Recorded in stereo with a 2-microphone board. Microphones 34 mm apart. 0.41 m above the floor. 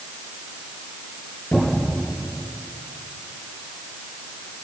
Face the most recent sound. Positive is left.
turn(degrees=70)  # may be behind; listen again after turning